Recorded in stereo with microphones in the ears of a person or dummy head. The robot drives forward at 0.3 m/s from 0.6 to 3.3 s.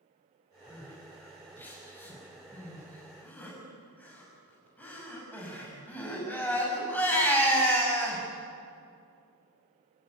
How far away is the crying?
About 6 m.